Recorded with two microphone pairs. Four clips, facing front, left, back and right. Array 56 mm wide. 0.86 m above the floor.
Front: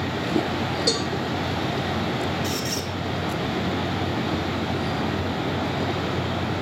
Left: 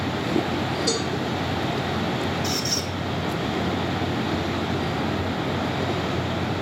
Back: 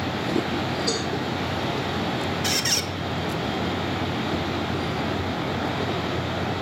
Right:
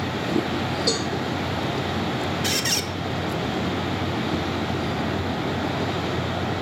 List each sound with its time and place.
0.9 s a cowbell: 20° right, 8 m
2.4 s a squeak: 130° right, 1.3 m